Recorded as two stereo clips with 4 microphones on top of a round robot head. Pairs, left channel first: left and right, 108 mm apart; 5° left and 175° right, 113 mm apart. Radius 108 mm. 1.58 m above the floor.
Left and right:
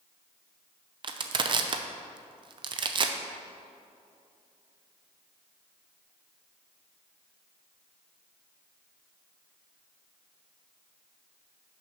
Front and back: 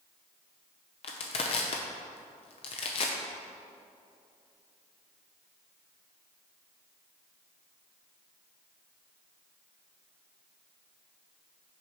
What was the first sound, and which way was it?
Crushing, 45° right.